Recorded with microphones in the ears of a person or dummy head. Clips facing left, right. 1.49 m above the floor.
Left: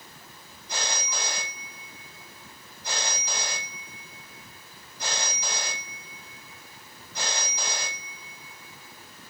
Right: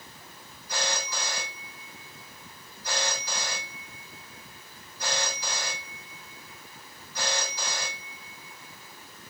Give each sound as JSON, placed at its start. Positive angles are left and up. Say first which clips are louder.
{"t": 0.7, "sound": "a phone ringing", "louder": "right 2 dB", "side_deg": 20, "distance_m": 2.5}